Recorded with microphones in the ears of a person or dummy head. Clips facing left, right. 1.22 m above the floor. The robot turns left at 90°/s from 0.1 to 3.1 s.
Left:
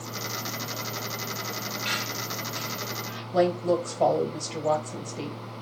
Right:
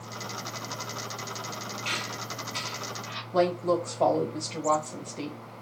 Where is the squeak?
20° left (ahead or behind), 1.2 m; by 3.2 s 65° right (ahead or behind), 1.2 m.